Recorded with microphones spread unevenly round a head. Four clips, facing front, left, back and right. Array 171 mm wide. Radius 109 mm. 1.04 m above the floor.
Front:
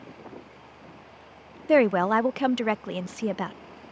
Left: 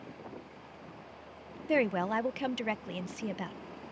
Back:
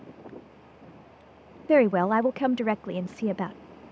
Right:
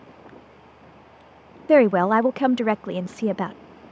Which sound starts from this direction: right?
A woman speaking, at 1.7 s.